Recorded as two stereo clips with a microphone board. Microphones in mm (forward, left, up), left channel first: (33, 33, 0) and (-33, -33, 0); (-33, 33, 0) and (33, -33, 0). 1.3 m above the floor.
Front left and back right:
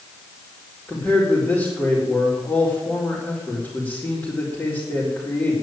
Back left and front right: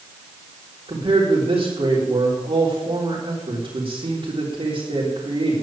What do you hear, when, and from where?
0.9 s a man speaking: 20° right, 4 m